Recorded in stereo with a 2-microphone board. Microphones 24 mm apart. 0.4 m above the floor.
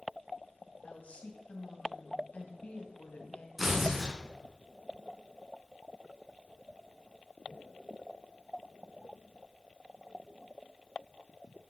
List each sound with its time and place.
0.8 s a woman speaking: 70° left (ahead or behind), 2.5 m
3.6 s tearing paper: 10° right (ahead or behind), 4.5 m